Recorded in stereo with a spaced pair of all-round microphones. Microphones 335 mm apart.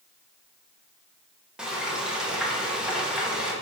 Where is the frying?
5° right (ahead or behind), 1.3 m.